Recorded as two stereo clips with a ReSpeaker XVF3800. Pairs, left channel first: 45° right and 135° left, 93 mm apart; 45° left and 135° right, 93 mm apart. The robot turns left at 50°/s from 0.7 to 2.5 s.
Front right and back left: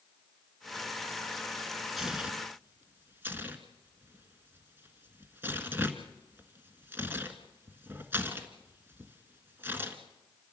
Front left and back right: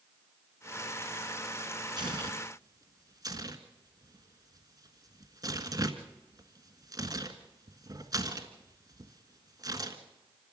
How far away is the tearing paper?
About 1.6 m.